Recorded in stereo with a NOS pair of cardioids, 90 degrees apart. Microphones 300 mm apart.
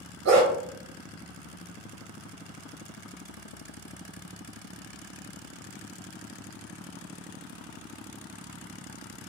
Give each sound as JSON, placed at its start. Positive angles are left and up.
{"t": 0.2, "sound": "a dog barking", "azimuth_deg": -60, "distance_m": 1.7}